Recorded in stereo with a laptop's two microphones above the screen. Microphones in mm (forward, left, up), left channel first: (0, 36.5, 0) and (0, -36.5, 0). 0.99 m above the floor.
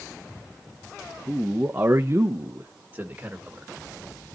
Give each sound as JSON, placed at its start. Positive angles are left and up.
{"t": 1.3, "sound": "a man speaking", "side_deg": -15, "distance_m": 1.3}